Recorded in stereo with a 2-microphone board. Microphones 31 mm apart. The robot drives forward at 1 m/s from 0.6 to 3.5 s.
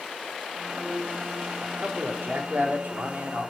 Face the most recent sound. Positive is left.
turn(degrees=-65)  # may be behind; listen again after turning